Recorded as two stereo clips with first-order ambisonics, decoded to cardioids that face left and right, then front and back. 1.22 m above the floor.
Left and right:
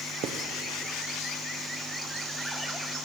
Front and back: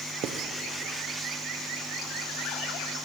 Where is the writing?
135° right, 0.6 m.